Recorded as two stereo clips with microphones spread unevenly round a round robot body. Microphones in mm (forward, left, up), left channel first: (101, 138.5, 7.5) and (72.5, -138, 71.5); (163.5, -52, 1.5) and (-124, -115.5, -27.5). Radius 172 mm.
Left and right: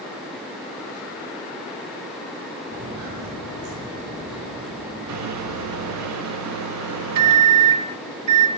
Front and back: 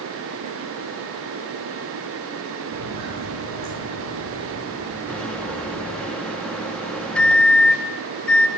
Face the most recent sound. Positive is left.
turn(degrees=-80)